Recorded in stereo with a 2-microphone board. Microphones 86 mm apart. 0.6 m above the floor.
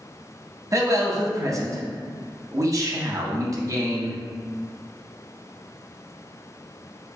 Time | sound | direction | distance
0.7 | a man speaking | 40° right (ahead or behind) | 0.7 m